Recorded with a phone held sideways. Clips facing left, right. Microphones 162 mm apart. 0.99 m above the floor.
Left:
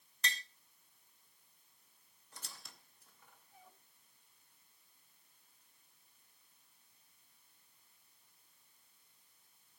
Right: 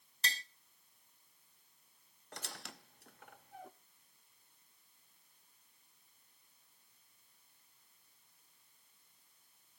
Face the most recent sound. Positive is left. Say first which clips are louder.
# right 8 dB
turn(degrees=-75)  # may be behind; listen again after turning